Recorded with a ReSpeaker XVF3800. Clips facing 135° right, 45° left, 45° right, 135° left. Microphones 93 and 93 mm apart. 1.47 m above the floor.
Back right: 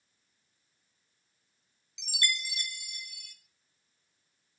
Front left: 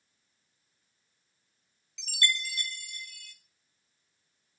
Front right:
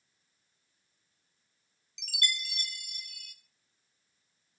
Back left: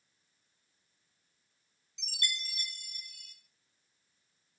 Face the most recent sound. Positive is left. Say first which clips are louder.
# front left 2 dB, front right 4 dB
turn(degrees=-65)